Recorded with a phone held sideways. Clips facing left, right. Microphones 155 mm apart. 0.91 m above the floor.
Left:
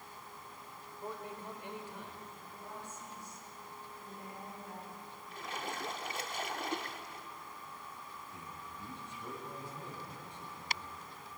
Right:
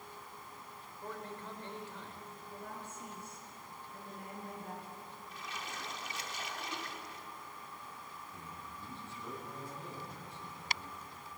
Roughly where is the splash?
Left.